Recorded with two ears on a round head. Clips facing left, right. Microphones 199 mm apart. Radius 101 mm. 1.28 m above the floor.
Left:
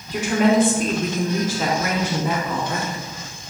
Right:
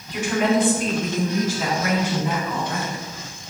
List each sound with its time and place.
0.1 s a woman speaking: 30° left (ahead or behind), 3.5 m; by 3.0 s 65° left (ahead or behind), 2.5 m